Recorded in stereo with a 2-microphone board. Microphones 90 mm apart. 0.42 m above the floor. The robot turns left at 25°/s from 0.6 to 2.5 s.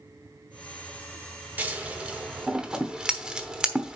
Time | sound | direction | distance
1.6 | scissors | 20° right (ahead or behind) | 1.0 m